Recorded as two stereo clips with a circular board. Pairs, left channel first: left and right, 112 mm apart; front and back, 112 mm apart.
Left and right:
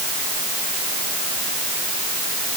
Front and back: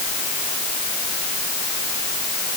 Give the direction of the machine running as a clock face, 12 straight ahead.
No machine running in this recording.